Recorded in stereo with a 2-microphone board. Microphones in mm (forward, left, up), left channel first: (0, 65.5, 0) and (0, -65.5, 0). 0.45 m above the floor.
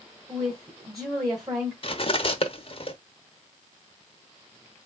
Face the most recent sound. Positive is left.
turn(degrees=45)  # may be behind; listen again after turning